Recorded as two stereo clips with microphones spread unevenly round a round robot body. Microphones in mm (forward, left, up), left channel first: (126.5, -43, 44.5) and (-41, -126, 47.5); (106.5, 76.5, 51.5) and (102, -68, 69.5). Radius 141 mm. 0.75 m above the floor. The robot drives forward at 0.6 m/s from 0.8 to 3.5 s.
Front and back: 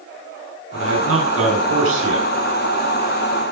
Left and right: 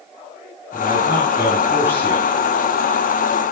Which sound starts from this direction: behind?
A man speaking, at 0.7 s.